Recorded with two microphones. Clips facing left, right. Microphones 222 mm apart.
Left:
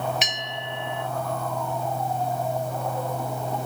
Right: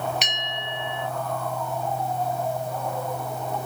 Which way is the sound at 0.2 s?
Centre (ahead or behind).